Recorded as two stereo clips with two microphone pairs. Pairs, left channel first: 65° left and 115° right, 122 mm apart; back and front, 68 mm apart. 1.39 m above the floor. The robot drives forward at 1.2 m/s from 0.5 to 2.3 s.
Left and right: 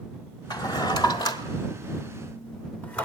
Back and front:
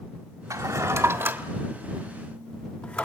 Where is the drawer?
15° left, 2 m; by 3.0 s 130° left, 1.2 m.